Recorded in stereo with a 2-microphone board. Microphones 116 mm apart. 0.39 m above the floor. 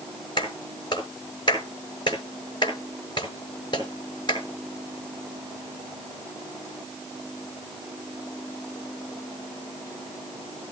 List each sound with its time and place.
0.4 s a clap: 40° left (ahead or behind), 6 m